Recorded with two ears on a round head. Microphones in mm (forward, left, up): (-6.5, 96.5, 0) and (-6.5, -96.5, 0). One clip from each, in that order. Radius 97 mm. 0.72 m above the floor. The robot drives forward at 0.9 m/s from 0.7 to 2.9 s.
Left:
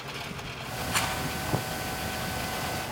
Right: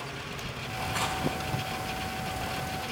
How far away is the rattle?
About 9.5 m.